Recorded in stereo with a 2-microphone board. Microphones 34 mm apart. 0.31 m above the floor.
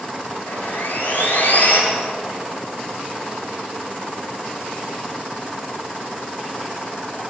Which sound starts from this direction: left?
Sawing, at 0.5 s.